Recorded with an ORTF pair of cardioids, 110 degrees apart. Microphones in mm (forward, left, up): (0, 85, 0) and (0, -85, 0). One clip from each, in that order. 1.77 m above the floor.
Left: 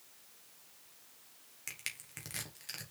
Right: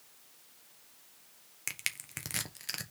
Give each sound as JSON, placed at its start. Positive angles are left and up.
{"t": 1.7, "sound": "crushing", "azimuth_deg": -40, "distance_m": 1.4}